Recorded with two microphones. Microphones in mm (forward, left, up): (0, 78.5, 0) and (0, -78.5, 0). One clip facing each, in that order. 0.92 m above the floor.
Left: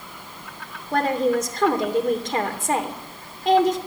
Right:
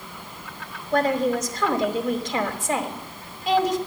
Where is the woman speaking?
50° left (ahead or behind), 3 m.